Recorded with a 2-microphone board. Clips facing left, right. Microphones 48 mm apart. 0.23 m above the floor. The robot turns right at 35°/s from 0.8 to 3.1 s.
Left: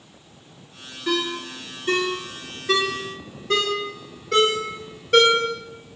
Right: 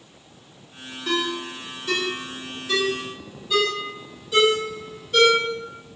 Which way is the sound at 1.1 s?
15° left (ahead or behind).